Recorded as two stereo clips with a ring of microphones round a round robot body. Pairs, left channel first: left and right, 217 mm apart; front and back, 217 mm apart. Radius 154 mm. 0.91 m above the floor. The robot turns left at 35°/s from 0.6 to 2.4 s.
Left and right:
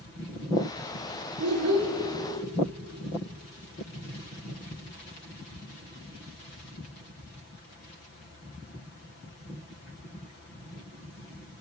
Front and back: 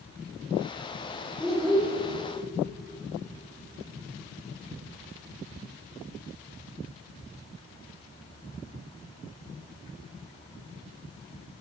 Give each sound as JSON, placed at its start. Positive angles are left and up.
{"t": 1.4, "sound": "a child speaking", "azimuth_deg": -85, "distance_m": 1.0}